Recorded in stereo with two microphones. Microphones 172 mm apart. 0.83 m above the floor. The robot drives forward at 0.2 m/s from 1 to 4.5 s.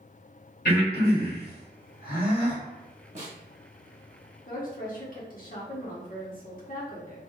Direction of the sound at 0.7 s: 65° left (ahead or behind).